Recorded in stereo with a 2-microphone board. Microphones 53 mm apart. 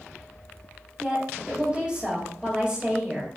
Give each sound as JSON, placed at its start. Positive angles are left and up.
{"t": 1.0, "sound": "a woman speaking", "side_deg": -15, "distance_m": 2.0}